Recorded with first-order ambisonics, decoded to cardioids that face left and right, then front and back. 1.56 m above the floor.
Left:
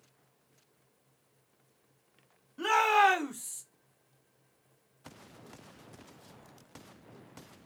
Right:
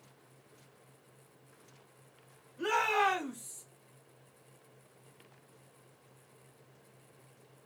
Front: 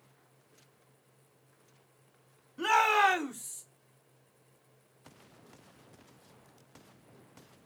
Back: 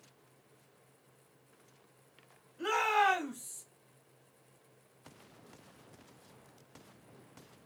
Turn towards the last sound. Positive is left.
turn(degrees=75)